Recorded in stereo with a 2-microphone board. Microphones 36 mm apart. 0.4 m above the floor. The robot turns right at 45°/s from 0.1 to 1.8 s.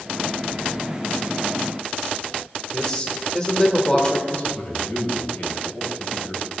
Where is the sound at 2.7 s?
25° left (ahead or behind), 1.5 m.